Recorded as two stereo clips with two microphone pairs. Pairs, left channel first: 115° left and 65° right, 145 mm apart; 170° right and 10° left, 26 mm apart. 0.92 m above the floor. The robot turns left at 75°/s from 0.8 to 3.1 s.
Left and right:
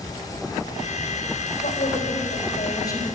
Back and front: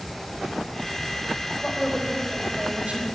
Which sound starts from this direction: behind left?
A woman speaking, at 1.6 s.